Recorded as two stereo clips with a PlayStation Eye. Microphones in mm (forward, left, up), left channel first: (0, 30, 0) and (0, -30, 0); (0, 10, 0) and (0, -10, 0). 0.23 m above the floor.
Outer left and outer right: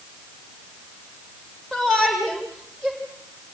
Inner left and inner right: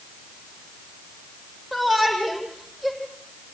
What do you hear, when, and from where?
1.7 s a shout: 10° left (ahead or behind), 8 m